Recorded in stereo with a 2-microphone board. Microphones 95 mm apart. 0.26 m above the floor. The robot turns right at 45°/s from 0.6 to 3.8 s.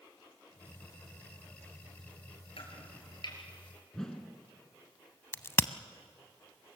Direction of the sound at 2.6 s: 75° left (ahead or behind).